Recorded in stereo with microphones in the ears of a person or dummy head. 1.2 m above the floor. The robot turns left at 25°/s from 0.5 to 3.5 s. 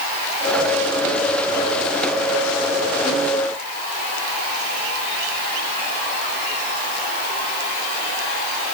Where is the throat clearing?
I don't hear throat clearing.